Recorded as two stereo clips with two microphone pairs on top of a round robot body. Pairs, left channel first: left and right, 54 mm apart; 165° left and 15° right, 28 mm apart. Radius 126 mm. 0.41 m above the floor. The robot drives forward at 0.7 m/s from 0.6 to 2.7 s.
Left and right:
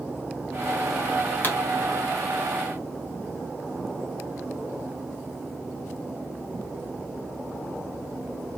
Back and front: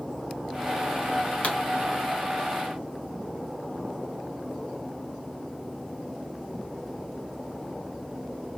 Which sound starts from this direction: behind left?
A pop, at 1.4 s.